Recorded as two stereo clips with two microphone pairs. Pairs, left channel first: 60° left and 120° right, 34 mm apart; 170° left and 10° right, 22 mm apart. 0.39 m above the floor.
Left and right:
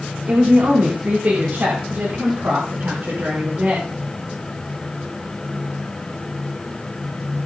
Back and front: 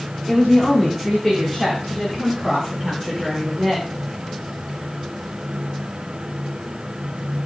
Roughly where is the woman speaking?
Right.